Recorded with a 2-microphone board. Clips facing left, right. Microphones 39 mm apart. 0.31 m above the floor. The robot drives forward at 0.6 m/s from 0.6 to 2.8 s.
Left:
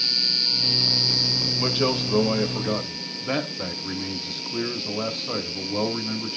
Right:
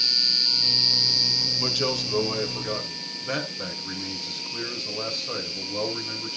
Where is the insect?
10° left (ahead or behind), 0.8 m; by 6.4 s 5° left (ahead or behind), 2 m.